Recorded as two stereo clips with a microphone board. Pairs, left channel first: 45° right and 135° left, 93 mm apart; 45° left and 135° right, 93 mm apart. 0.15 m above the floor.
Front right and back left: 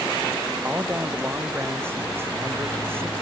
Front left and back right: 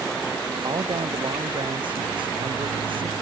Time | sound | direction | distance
0.6 | a man speaking | 160° right | ?